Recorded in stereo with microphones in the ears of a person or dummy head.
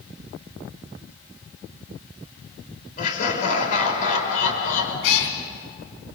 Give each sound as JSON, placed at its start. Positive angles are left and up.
{"t": 3.0, "sound": "laughter", "side_deg": 45, "distance_m": 5.5}
{"t": 5.0, "sound": "a cat meowing", "side_deg": 70, "distance_m": 3.0}